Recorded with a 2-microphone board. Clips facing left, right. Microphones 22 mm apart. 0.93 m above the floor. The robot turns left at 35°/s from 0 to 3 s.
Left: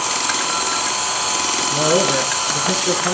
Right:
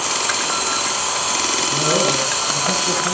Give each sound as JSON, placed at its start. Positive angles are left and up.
{"t": 1.7, "sound": "a man speaking", "azimuth_deg": 155, "distance_m": 9.0}